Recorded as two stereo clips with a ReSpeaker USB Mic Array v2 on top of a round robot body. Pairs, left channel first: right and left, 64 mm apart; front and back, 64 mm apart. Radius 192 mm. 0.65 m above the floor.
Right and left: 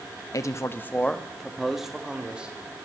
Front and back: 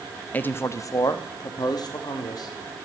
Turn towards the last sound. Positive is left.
turn(degrees=15)